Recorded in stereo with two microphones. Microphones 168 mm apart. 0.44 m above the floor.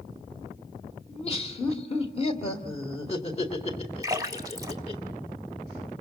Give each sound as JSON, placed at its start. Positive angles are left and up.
{"t": 1.1, "sound": "laughter", "side_deg": 40, "distance_m": 2.0}
{"t": 4.0, "sound": "a splash", "side_deg": -20, "distance_m": 1.1}